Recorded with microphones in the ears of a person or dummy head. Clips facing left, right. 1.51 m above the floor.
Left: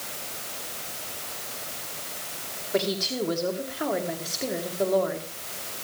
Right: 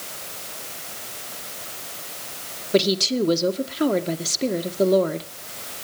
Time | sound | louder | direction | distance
2.7 | a woman speaking | right 7 dB | 50° right (ahead or behind) | 1.8 m